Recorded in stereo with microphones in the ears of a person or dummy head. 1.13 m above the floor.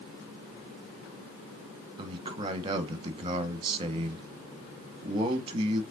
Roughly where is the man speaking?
Right.